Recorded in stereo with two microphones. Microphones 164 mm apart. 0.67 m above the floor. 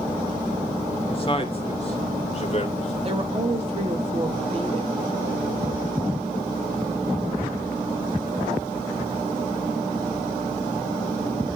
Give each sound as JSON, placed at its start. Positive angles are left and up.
{"t": 1.1, "sound": "a man speaking", "side_deg": 35, "distance_m": 1.8}
{"t": 3.0, "sound": "a woman speaking", "side_deg": -40, "distance_m": 2.5}